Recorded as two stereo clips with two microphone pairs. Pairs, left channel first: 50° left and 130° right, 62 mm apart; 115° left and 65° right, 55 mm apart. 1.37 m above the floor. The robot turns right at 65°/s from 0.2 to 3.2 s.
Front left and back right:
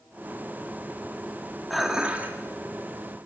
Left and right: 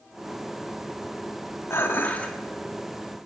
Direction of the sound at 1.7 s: 140° left.